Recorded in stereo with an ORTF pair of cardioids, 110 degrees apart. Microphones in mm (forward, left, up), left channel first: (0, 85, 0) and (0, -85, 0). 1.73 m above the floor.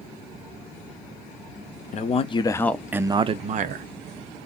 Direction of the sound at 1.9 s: 45° left.